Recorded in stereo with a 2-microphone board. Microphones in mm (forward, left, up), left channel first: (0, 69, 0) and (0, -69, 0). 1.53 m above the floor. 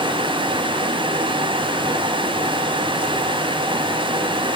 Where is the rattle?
I don't hear a rattle.